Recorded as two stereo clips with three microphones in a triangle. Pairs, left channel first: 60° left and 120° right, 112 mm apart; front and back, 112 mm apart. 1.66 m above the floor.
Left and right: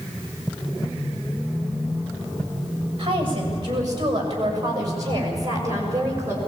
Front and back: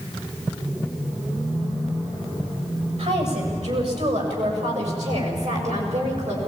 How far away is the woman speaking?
About 6.5 m.